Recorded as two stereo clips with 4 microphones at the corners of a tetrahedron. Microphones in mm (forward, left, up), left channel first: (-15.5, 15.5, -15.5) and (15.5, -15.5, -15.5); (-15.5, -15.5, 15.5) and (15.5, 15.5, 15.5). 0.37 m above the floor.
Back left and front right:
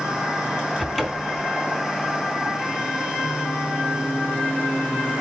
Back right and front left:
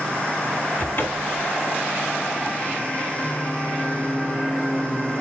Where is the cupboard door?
135° right, 1.2 m.